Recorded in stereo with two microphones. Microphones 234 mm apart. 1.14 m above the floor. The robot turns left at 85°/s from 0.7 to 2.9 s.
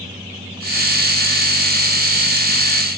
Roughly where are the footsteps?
No footsteps in this recording.